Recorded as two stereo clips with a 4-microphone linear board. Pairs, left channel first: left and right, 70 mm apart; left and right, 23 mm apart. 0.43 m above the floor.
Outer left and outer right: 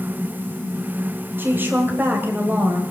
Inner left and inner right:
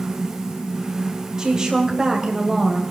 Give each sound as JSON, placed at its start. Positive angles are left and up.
{"t": 1.4, "sound": "a woman speaking", "side_deg": -30, "distance_m": 2.5}